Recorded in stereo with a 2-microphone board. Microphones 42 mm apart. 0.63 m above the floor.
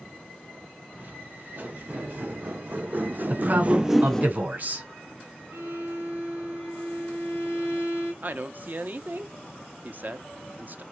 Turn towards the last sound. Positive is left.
turn(degrees=-45)  # may be behind; listen again after turning